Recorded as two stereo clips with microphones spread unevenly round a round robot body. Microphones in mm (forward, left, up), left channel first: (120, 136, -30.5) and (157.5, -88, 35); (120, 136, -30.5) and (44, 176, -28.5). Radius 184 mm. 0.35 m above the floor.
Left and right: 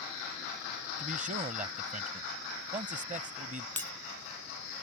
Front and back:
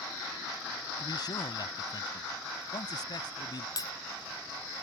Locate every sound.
1.0 s a man speaking: 20° right
3.8 s breaking glass: 15° left